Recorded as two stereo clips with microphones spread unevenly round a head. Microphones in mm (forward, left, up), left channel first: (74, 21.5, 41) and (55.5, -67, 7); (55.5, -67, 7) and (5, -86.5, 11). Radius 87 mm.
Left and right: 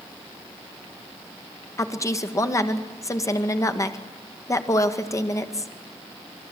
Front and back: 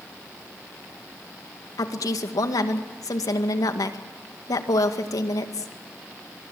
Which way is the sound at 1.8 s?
20° left.